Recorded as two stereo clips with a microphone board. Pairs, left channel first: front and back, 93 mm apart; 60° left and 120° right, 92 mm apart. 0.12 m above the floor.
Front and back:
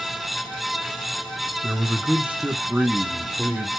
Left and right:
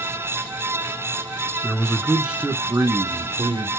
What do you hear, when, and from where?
1.6 s a man speaking: 120° left, 1.2 m; by 3.7 s 105° right, 1.7 m